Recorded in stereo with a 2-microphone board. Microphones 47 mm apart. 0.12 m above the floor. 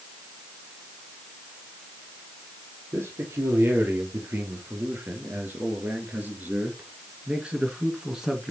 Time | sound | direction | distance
2.9 | a man speaking | 60° right (ahead or behind) | 3.5 m